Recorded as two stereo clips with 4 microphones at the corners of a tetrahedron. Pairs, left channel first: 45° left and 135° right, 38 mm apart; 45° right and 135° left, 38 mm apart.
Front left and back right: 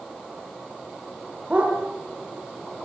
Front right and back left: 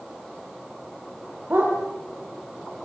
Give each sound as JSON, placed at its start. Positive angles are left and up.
{"t": 1.5, "sound": "a dog barking", "azimuth_deg": 165, "distance_m": 7.0}